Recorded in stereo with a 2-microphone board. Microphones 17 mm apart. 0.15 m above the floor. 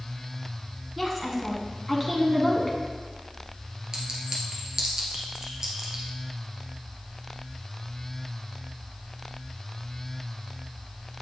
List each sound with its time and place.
1.0 s a woman speaking: centre (ahead or behind), 1.1 m
3.9 s a clink: 30° right (ahead or behind), 1.5 m